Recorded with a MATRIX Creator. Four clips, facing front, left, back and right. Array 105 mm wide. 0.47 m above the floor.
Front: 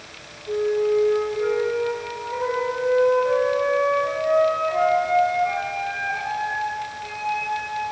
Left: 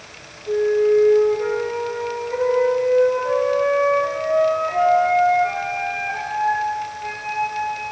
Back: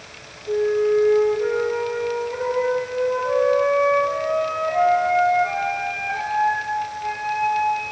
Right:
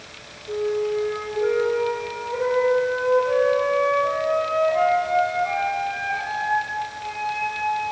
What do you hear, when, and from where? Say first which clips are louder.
0.5 s a flute: left 7 dB, back 2 dB; 95° left, 7 m